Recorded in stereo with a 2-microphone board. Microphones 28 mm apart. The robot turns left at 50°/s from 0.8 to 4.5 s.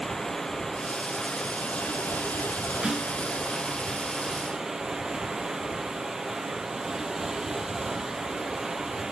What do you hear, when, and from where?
0.0 s running water: 165° left, 0.7 m; by 9.1 s 20° right, 0.7 m
2.8 s a snare drum: 25° right (ahead or behind), 1.0 m; by 3.1 s 15° right (ahead or behind), 1.0 m